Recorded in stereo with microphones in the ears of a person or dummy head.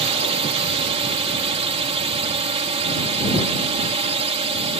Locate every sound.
0.0 s a drone: 35° right (ahead or behind)